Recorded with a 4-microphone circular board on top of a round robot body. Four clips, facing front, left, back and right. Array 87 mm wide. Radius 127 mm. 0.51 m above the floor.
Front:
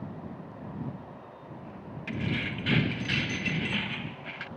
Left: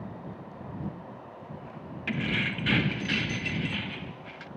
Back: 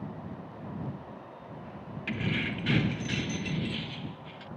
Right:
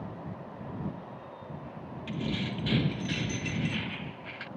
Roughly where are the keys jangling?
Left.